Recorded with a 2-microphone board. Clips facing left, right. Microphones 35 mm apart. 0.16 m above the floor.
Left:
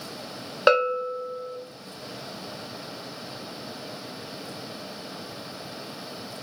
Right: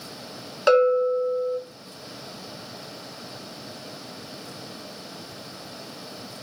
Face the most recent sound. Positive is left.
turn(degrees=25)  # may be behind; listen again after turning